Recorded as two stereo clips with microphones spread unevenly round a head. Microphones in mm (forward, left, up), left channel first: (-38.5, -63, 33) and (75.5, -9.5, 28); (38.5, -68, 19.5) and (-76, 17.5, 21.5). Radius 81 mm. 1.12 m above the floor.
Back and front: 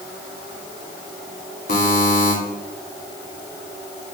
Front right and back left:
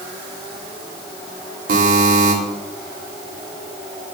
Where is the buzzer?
170° left, 2.5 m.